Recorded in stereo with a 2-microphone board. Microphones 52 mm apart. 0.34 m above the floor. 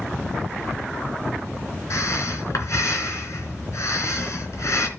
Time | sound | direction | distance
1.9 | breathing | 70° left (ahead or behind) | 3.5 m